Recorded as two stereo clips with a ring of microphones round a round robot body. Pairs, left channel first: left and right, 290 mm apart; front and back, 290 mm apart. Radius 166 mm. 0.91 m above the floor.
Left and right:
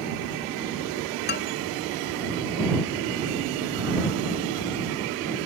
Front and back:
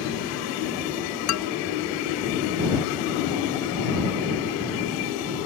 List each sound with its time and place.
1.3 s a man speaking: 30° left